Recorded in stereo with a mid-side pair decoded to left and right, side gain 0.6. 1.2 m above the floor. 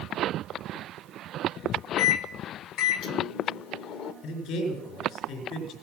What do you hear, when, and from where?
2.0 s a microwave: 65° left, 1.2 m
4.2 s a man speaking: 70° left, 3.5 m